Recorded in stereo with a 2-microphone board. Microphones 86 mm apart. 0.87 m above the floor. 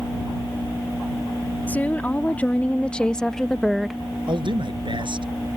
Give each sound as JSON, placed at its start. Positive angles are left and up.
{"t": 1.7, "sound": "a woman speaking", "side_deg": 20}
{"t": 4.3, "sound": "a man speaking", "side_deg": -65}